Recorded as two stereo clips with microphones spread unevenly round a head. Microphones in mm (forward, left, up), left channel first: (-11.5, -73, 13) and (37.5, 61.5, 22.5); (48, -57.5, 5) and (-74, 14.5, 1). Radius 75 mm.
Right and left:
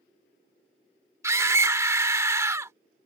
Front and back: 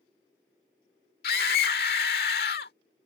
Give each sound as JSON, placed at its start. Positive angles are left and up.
{"t": 1.2, "sound": "a scream", "azimuth_deg": 0}